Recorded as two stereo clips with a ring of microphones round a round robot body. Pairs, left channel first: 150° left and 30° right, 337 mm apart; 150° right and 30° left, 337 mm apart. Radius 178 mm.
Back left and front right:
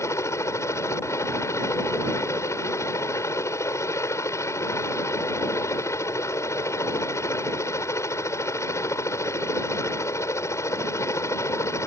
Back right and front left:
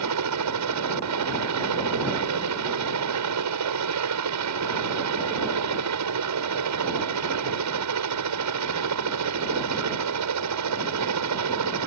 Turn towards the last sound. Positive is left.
turn(degrees=70)